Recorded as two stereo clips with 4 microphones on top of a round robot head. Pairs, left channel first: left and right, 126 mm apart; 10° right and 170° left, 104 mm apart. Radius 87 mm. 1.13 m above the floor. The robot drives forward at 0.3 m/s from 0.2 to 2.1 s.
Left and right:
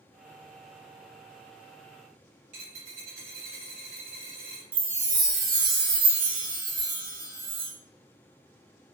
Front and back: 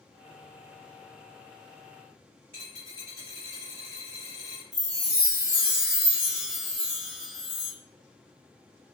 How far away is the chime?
About 0.7 m.